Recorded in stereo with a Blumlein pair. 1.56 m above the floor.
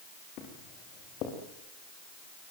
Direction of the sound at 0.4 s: 35° left.